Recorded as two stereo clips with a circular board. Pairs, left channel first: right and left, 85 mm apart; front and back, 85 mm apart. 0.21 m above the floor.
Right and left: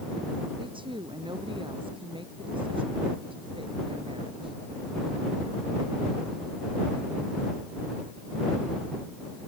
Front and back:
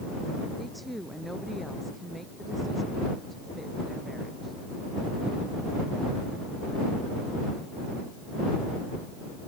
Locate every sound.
0.6 s a woman speaking: 90° left